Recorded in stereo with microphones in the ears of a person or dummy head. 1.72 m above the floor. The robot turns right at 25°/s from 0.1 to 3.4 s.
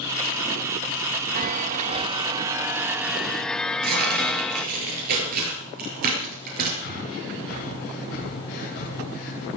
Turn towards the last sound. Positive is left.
turn(degrees=55)  # may be behind; listen again after turning